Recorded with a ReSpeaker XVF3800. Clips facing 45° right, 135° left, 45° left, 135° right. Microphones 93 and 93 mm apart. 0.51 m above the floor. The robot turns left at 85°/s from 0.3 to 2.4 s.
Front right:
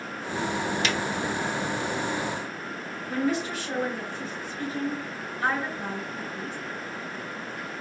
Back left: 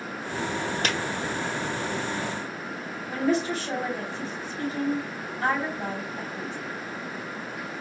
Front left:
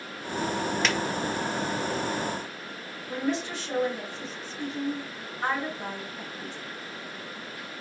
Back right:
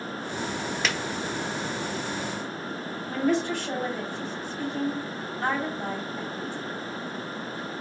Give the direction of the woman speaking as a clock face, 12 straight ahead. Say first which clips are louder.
Back left 2 dB, back right 4 dB; 6 o'clock.